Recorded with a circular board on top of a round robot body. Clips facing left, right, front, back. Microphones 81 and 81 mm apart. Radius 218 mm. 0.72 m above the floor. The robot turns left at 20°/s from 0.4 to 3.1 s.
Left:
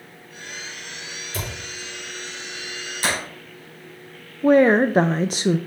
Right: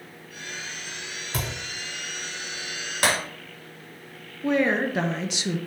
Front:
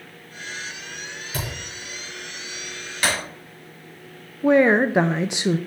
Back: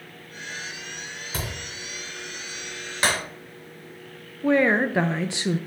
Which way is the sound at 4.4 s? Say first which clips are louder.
Left 8 dB, front 4 dB; 65° left.